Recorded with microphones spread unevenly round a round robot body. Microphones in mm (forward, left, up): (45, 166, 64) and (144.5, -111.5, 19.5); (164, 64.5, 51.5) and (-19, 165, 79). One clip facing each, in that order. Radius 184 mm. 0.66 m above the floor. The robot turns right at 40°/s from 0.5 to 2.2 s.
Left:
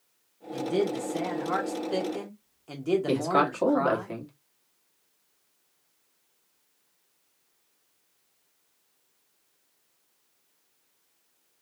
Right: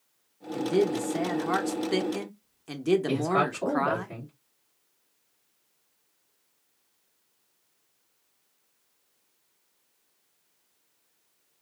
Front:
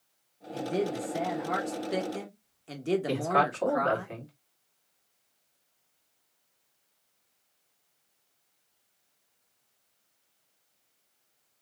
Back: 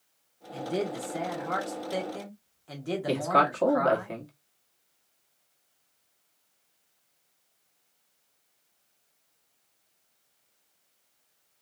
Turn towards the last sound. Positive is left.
turn(degrees=110)